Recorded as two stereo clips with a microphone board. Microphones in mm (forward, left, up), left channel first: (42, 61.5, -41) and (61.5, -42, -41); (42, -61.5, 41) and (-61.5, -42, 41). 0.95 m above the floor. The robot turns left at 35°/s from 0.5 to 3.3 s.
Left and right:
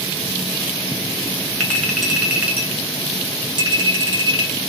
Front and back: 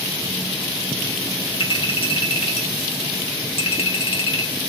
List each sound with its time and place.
1.6 s a clink: 25° left, 0.9 m; by 4.5 s 35° right, 0.9 m